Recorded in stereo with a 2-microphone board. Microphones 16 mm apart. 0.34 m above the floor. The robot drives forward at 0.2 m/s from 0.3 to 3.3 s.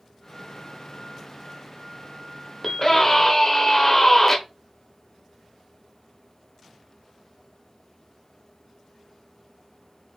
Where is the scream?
20° left (ahead or behind), 0.9 m.